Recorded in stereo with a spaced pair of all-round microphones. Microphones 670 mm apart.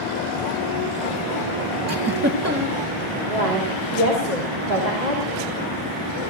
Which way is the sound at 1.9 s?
20° right (ahead or behind).